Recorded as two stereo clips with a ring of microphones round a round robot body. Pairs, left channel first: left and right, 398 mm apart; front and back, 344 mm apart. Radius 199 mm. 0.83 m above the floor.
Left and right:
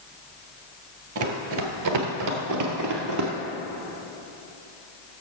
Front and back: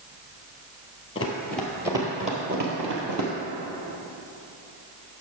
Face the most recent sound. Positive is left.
turn(degrees=-135)